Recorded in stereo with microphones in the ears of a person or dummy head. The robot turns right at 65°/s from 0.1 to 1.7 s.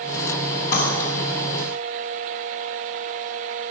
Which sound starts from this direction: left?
Cutlery clinking, at 0.7 s.